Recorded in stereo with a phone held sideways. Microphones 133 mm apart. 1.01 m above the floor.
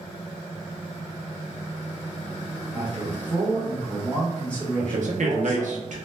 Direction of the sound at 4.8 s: 65° right (ahead or behind).